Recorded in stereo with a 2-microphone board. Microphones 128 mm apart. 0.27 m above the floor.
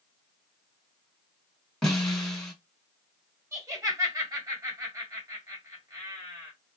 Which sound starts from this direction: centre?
A snare drum, at 1.8 s.